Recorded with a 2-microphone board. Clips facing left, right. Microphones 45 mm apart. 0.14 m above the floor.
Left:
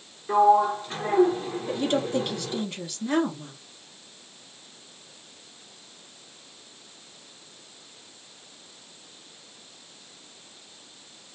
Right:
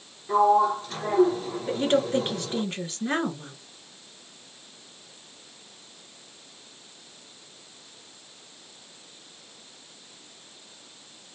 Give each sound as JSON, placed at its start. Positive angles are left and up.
{"t": 0.3, "sound": "a sliding door", "side_deg": 20, "distance_m": 1.1}
{"t": 1.7, "sound": "a woman speaking", "side_deg": -35, "distance_m": 1.8}